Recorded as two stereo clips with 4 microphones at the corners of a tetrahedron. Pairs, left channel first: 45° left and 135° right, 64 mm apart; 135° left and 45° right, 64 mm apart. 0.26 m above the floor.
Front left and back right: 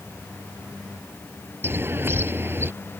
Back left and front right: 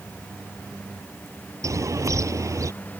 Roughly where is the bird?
Right.